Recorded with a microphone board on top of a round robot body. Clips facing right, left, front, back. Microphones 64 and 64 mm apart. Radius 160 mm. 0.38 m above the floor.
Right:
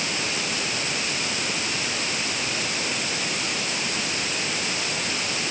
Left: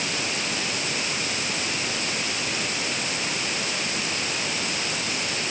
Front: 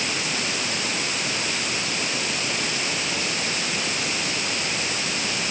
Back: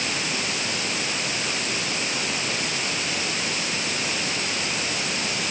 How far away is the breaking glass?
I don't hear breaking glass.